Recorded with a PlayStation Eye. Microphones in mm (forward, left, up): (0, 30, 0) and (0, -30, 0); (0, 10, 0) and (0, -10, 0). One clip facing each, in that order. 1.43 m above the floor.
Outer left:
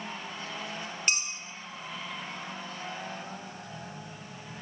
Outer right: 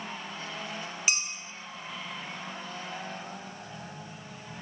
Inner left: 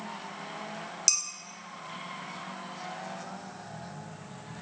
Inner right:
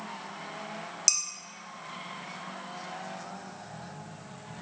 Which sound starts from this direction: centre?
Dishes clattering, at 1.1 s.